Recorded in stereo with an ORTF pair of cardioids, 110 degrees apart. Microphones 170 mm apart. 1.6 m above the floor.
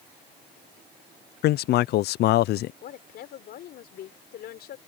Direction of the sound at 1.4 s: 70° left.